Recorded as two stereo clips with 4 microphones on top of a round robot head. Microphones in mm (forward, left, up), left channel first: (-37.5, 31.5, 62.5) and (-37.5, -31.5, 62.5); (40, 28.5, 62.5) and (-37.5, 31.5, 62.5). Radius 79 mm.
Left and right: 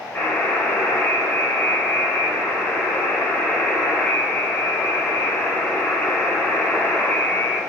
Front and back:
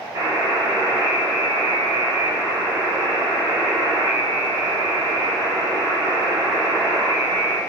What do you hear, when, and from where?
0.1 s a buzzer: 145° left, 0.9 m